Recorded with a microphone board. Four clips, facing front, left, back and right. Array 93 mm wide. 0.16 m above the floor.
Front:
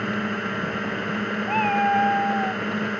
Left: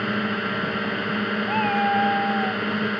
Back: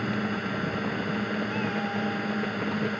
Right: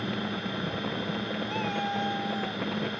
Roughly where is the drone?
Ahead left.